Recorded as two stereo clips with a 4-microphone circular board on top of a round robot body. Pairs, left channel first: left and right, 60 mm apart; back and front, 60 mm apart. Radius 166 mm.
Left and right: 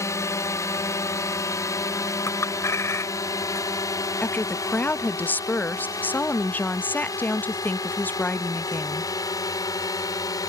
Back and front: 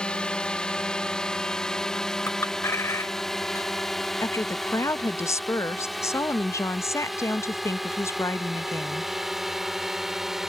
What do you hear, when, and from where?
0.0 s a drone: 110° left; by 10.5 s 85° left
2.3 s a clink: 135° left
4.2 s a woman speaking: 145° left